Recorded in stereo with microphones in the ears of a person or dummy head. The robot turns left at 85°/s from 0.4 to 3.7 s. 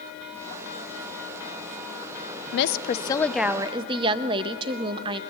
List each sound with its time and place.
2.5 s a woman speaking: 65° left, 0.7 m; by 5.2 s 35° right, 0.7 m